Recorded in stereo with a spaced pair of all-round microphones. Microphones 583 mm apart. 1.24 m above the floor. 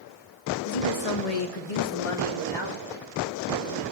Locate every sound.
0.7 s a woman speaking: 75° left (ahead or behind), 1.8 m; by 3.8 s 25° left (ahead or behind), 3 m